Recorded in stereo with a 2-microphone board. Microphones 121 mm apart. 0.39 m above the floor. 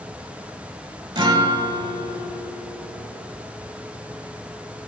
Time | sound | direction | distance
1.1 | a guitar | 40° right (ahead or behind) | 0.9 m